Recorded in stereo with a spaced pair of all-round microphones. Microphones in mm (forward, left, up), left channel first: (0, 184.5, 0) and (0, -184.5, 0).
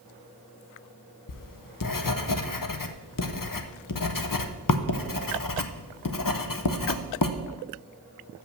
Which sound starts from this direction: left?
Writing, at 1.3 s.